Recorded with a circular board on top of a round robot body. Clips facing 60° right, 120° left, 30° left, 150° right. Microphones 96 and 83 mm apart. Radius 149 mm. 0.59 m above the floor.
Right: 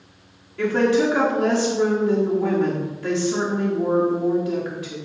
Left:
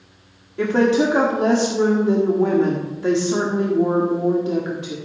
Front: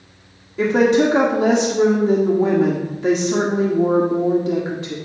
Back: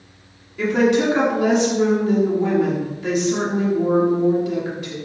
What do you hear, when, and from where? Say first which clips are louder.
0.6 s a woman speaking: left 2 dB, front 2 dB; 65° left, 1.6 m